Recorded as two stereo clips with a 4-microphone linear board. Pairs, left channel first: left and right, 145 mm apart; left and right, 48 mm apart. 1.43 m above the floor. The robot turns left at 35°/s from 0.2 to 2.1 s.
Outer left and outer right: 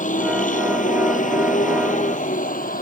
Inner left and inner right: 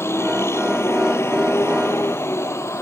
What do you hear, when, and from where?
0.0 s a vehicle: 70° left (ahead or behind); by 2.8 s 80° left